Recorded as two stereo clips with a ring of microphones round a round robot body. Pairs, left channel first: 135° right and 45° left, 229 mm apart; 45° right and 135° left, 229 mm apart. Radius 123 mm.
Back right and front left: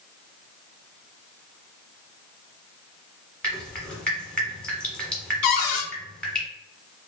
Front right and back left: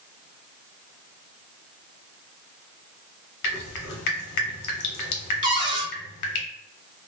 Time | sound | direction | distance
3.4 | dripping | 50° right | 0.7 m
5.4 | a cupboard door | 155° right | 0.5 m